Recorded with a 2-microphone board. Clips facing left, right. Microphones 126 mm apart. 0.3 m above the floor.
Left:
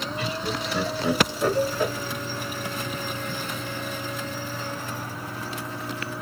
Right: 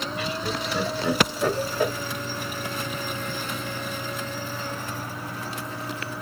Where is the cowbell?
40° left (ahead or behind), 1.1 m.